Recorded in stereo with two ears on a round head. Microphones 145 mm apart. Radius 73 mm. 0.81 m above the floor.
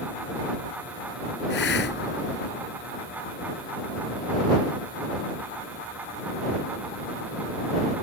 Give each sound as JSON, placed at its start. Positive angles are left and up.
{"t": 1.5, "sound": "a hiss", "side_deg": 75}